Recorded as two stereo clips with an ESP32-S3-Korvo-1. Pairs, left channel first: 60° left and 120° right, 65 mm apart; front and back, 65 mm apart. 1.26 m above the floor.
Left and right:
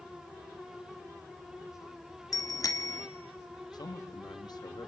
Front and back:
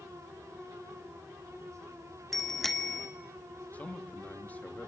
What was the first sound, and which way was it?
A bicycle bell, 85° left.